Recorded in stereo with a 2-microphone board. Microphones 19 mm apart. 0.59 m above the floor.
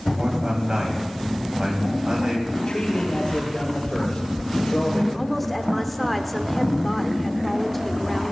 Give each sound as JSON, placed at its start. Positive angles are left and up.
{"t": 0.1, "sound": "a man speaking", "side_deg": -50, "distance_m": 3.5}
{"t": 2.5, "sound": "a man speaking", "side_deg": 50, "distance_m": 3.5}
{"t": 5.1, "sound": "a woman speaking", "side_deg": 5, "distance_m": 1.5}